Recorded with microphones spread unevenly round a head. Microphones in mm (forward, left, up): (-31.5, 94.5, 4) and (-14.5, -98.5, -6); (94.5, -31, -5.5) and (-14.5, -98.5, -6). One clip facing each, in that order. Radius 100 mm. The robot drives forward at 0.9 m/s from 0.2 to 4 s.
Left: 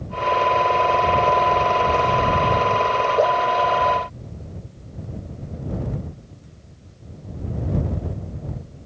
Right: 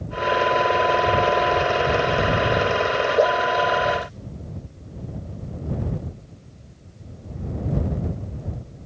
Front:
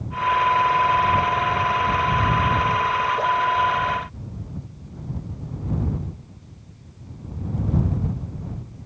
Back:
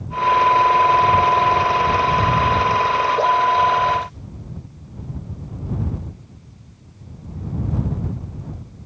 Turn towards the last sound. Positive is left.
No sound to turn to.